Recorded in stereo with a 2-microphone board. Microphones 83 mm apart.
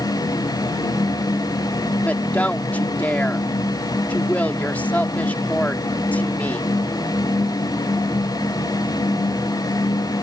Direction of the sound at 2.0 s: 20° left (ahead or behind).